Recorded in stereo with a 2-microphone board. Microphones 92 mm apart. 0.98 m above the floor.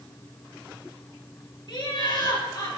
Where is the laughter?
60° left (ahead or behind), 2.5 m; by 2.7 s 50° left (ahead or behind), 3 m.